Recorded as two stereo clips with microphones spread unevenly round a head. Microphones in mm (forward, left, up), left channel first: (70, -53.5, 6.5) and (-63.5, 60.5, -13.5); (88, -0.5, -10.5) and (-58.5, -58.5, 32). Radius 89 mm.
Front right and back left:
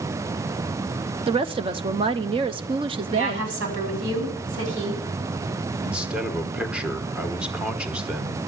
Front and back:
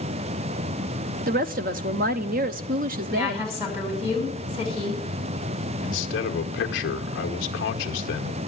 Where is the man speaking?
50° left, 1.2 m.